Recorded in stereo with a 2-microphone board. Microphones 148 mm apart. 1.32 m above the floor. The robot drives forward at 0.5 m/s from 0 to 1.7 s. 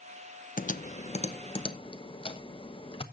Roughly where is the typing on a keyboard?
Left.